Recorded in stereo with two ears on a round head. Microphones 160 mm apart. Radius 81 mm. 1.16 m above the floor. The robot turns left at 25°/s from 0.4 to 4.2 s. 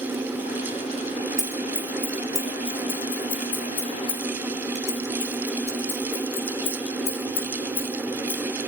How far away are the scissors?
About 3.5 m.